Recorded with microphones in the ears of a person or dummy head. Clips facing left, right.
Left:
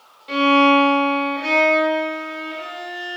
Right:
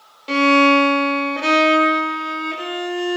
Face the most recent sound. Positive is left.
turn(degrees=-65)  # may be behind; listen again after turning